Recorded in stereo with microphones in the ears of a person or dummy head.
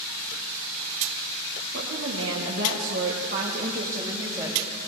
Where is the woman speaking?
80° right, 1.8 m; by 4.7 s 15° right (ahead or behind), 1.9 m.